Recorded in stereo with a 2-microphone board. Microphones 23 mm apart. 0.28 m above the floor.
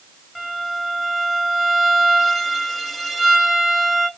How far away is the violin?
About 1.4 m.